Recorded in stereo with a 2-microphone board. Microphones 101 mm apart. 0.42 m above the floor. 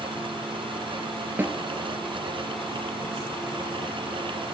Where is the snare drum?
20° right (ahead or behind), 1.7 m.